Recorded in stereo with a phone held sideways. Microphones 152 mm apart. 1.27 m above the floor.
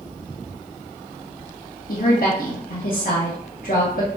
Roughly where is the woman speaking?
Left.